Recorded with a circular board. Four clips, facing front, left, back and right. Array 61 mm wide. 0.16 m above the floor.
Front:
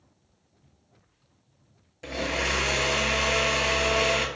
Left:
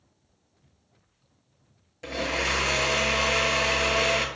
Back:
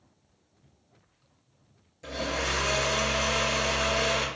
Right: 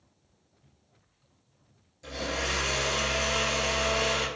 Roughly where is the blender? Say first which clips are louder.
Left 4 dB, front 2 dB; ahead left.